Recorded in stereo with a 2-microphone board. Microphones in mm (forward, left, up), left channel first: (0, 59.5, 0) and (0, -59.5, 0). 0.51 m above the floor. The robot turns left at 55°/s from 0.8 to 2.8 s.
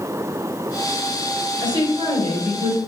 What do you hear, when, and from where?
1.6 s a woman speaking: 40° right, 2 m; by 2.8 s 105° right, 2 m